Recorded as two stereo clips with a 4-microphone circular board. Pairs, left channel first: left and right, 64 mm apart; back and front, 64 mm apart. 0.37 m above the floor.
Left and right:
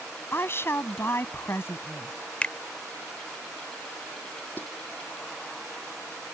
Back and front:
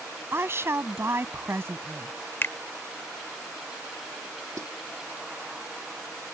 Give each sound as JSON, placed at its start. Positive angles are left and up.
{"t": 0.3, "sound": "a woman speaking", "azimuth_deg": 45}
{"t": 2.4, "sound": "a finger snap", "azimuth_deg": 150}
{"t": 4.6, "sound": "a snare drum", "azimuth_deg": 35}